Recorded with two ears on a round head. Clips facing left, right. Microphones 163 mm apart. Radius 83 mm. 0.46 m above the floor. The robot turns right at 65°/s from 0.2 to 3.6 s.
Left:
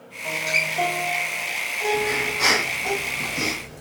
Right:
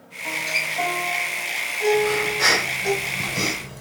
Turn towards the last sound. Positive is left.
turn(degrees=-95)